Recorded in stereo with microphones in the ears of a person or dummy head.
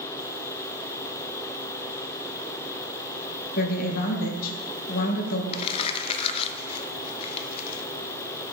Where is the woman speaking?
50° left (ahead or behind), 1.5 m.